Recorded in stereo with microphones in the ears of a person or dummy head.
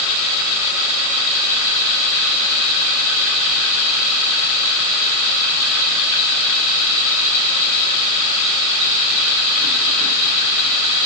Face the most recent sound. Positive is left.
No sound to turn to.